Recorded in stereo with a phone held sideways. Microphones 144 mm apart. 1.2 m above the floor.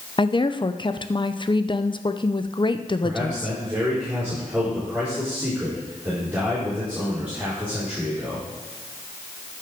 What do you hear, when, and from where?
0.2 s a woman speaking: 35° left (ahead or behind), 0.5 m
3.0 s a man speaking: 10° right (ahead or behind), 4.5 m